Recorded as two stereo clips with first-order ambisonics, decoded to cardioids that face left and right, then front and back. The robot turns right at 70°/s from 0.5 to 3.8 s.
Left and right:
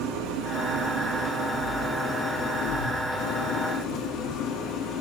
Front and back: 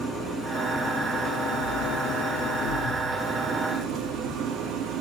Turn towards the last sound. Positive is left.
turn(degrees=125)